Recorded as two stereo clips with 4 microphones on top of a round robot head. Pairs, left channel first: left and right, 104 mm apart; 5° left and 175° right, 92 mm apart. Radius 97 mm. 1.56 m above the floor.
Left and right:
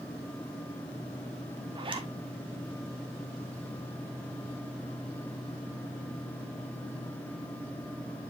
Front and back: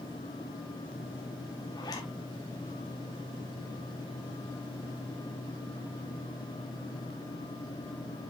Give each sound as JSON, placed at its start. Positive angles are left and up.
{"t": 1.8, "sound": "a zipper", "azimuth_deg": -50, "distance_m": 1.3}